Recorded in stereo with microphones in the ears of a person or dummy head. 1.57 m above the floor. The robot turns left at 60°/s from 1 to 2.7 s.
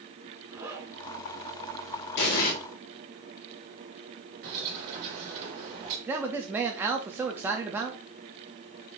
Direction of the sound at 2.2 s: 65° left (ahead or behind).